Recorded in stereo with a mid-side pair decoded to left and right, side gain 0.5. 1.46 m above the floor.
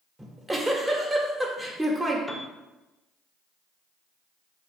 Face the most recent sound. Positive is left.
turn(degrees=0)